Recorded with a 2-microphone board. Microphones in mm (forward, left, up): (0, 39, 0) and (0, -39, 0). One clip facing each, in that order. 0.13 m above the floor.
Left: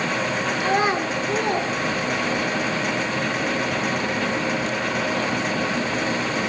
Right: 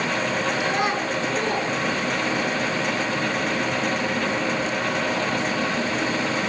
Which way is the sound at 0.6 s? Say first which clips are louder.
Left 2 dB; 20° left (ahead or behind).